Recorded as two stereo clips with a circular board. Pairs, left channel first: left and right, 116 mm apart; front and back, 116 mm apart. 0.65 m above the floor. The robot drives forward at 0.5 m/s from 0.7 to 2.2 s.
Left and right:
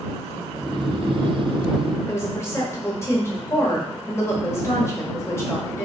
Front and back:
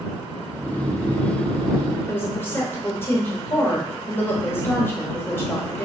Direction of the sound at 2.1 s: 45° left.